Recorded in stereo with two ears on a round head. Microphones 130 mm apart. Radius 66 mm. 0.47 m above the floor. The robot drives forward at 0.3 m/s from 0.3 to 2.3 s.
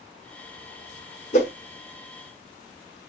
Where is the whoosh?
50° left (ahead or behind), 0.9 m.